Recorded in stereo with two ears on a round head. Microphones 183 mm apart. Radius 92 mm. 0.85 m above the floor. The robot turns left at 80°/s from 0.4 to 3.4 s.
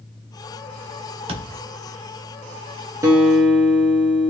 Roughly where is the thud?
Right.